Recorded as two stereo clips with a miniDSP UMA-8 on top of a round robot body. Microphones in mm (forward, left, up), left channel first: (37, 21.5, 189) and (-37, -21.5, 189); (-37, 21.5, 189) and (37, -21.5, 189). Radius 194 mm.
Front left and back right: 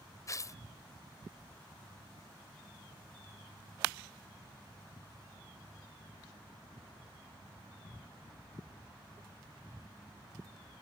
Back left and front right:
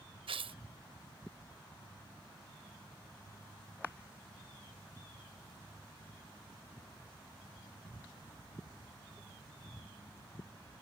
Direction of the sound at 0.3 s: 25° right.